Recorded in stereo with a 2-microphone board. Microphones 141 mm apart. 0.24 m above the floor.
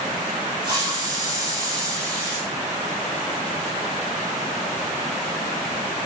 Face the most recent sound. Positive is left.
turn(degrees=-30)  # may be behind; listen again after turning